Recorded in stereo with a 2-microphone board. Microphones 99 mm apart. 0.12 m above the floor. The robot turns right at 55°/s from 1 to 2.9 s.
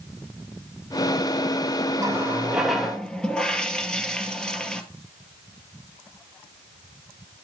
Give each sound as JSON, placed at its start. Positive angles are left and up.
{"t": 2.0, "sound": "a running tap", "azimuth_deg": -40, "distance_m": 1.8}